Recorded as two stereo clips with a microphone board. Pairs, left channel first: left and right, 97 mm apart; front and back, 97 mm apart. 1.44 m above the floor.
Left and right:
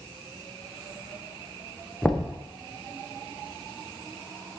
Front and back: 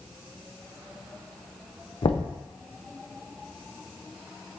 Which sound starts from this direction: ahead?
Knocking, at 2.0 s.